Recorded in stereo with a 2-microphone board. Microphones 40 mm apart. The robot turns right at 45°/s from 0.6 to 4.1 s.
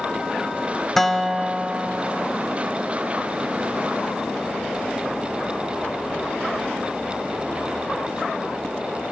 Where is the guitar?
165° left, 0.6 m; by 2.3 s 135° right, 0.6 m.